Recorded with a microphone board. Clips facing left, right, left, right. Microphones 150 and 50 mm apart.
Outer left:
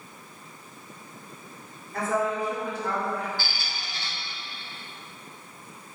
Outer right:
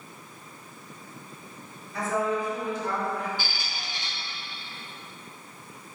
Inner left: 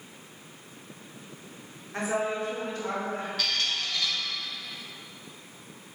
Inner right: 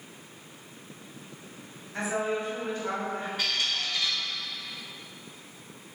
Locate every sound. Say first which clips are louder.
1.9 s a woman speaking: outer left 1 dB, inner left 1 dB; 50° left (ahead or behind), 1.1 m; by 3.3 s 65° left (ahead or behind), 1.7 m
3.4 s a squeak: even, even; 15° right (ahead or behind), 0.6 m